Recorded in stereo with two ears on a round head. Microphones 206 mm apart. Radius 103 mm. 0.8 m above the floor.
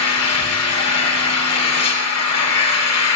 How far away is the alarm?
No alarm in this recording.